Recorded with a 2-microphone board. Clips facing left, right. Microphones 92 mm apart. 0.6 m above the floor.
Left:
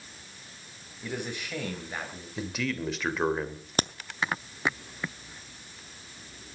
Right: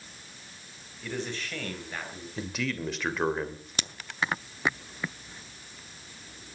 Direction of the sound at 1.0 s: 15° left (ahead or behind).